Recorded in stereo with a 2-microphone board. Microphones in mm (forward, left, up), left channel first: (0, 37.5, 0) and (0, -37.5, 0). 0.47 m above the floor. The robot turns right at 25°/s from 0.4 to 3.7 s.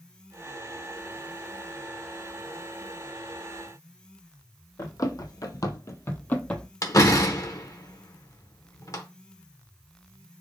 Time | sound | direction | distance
4.8 | running footsteps | 50° left (ahead or behind) | 1.0 m
6.8 | a door slam | 50° left (ahead or behind) | 0.7 m